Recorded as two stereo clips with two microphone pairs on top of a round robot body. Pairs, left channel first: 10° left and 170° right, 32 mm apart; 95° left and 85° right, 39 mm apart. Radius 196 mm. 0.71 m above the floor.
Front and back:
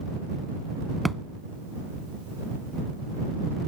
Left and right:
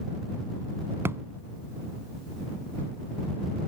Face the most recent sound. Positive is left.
turn(degrees=-80)